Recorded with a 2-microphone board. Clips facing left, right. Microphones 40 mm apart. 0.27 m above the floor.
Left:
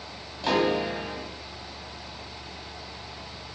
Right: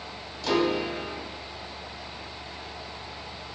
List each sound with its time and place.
0.4 s a piano: 30° left (ahead or behind), 1.4 m